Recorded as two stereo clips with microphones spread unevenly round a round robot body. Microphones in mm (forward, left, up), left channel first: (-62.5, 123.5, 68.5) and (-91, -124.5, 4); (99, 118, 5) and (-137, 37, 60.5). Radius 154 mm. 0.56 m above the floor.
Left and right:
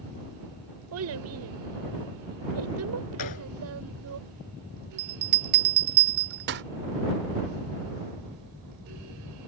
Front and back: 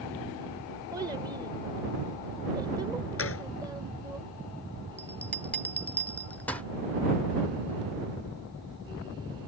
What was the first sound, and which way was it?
A child speaking, 80° right.